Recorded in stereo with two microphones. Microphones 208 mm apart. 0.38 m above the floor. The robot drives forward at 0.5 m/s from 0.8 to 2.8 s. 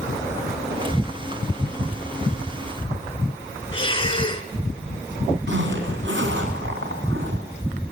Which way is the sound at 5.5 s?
65° right (ahead or behind).